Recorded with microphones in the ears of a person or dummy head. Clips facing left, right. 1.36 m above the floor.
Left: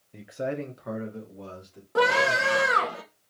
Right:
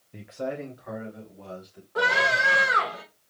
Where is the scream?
50° left (ahead or behind), 1.4 m.